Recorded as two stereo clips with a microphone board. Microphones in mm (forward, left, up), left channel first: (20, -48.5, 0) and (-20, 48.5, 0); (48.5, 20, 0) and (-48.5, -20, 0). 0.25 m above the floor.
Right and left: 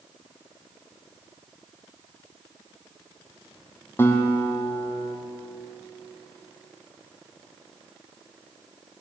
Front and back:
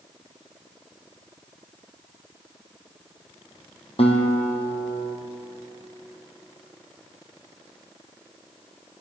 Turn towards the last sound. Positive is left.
turn(degrees=0)